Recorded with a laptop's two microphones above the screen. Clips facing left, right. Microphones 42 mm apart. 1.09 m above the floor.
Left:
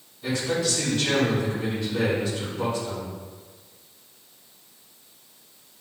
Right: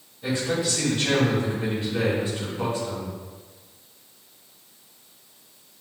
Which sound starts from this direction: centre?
A man speaking, at 0.2 s.